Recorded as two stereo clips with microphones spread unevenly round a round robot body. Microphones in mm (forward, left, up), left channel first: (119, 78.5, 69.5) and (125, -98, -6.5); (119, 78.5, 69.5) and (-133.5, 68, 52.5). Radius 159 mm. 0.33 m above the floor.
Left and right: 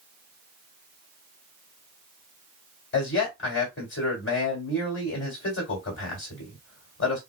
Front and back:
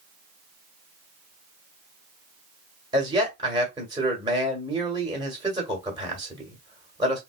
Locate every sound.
2.9 s a man speaking: 115° left, 1.5 m